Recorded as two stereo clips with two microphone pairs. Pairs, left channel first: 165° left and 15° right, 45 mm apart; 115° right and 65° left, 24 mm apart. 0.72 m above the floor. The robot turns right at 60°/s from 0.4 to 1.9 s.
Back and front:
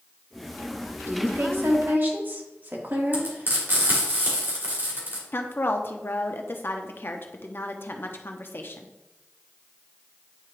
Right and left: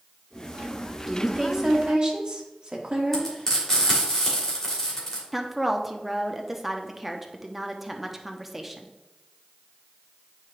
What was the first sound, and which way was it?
A woman speaking, 30° right.